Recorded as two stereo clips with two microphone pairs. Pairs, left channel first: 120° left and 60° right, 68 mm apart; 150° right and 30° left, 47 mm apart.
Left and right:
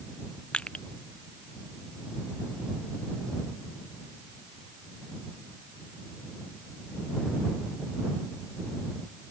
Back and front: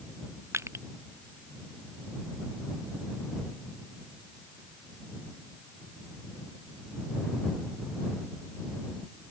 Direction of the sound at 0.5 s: 45° left.